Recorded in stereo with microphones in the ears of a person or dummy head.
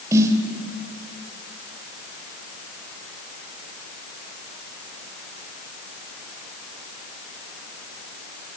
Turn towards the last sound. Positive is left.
turn(degrees=-20)  # may be behind; listen again after turning